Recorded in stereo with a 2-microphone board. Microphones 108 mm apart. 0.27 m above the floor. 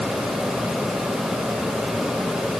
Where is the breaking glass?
No breaking glass in this recording.